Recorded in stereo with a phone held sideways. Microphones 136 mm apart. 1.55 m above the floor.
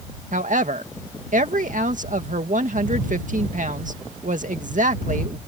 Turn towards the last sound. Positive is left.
turn(degrees=-70)  # may be behind; listen again after turning